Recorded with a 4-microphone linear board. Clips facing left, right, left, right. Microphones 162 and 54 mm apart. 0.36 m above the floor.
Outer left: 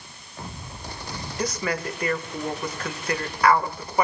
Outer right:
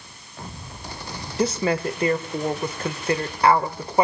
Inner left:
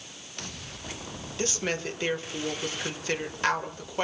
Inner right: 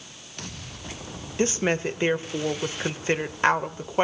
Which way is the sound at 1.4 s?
25° right (ahead or behind).